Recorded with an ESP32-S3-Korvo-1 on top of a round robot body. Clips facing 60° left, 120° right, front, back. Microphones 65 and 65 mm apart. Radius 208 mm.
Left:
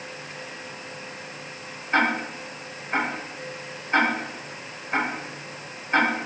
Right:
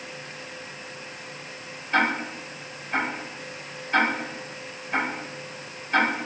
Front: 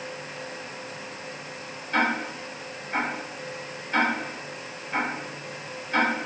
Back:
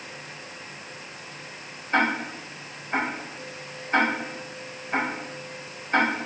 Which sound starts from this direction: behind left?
Ticking, at 1.9 s.